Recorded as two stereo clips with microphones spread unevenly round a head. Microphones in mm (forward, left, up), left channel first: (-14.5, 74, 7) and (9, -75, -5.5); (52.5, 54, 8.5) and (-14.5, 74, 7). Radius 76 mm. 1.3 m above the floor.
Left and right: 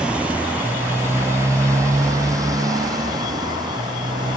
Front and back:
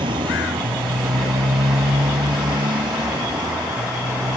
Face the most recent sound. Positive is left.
turn(degrees=-145)